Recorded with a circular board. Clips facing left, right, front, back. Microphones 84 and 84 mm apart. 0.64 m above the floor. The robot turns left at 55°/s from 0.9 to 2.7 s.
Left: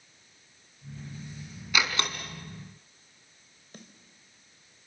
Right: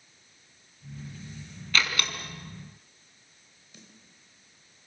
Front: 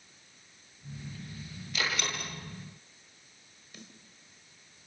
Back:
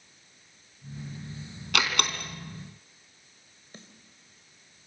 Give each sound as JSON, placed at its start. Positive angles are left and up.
{"t": 1.7, "sound": "a door slam", "azimuth_deg": 170, "distance_m": 3.5}
{"t": 3.7, "sound": "a snare drum", "azimuth_deg": 125, "distance_m": 3.0}